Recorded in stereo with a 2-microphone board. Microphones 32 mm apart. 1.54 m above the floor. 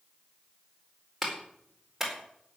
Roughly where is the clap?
Centre.